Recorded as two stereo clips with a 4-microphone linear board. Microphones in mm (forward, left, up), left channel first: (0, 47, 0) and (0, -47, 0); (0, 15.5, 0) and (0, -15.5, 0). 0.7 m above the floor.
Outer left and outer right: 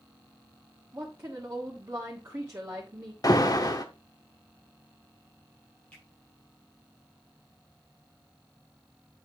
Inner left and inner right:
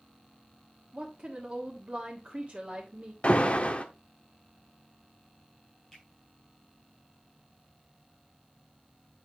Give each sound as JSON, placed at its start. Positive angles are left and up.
{"t": 0.9, "sound": "a woman speaking", "side_deg": -30, "distance_m": 1.5}
{"t": 3.2, "sound": "an alarm", "side_deg": 45, "distance_m": 1.0}
{"t": 5.9, "sound": "a finger snap", "side_deg": 15, "distance_m": 5.0}